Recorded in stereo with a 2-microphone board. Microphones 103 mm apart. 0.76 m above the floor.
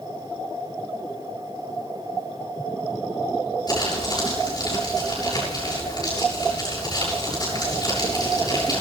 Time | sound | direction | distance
3.7 | crumpling | 40° left (ahead or behind) | 8 m